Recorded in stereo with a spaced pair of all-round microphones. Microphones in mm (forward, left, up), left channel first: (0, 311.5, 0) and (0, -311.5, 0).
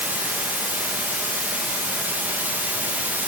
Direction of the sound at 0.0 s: 5° right (ahead or behind).